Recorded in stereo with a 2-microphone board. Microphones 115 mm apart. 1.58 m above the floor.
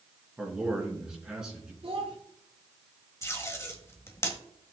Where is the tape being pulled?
25° left (ahead or behind), 1.5 m.